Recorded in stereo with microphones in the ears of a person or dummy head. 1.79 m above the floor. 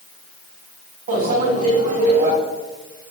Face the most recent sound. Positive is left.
turn(degrees=-45)  # may be behind; listen again after turning